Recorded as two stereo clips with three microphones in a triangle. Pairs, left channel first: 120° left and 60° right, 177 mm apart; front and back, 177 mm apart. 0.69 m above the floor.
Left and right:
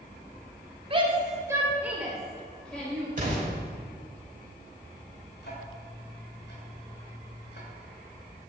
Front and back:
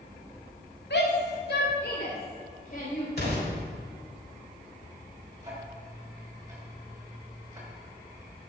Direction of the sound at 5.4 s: 110° left.